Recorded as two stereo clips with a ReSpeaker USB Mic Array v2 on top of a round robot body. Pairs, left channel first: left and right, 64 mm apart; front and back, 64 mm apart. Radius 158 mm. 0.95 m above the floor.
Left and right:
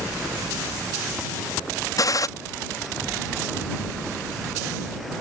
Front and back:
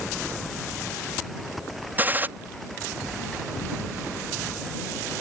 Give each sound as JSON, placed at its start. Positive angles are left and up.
{"t": 2.0, "sound": "a gunshot", "azimuth_deg": 120}